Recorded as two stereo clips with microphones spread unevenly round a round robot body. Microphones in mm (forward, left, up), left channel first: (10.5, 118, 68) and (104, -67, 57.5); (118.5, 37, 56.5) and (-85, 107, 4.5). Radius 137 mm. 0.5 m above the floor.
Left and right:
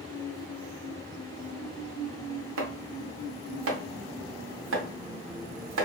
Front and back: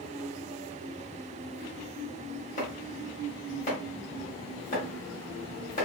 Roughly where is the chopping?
Right.